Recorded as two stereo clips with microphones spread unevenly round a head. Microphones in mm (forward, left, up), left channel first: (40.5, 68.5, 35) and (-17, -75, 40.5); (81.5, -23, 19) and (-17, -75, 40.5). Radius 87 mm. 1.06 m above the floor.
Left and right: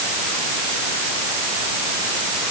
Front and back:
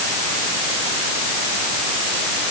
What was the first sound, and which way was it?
Only background noise.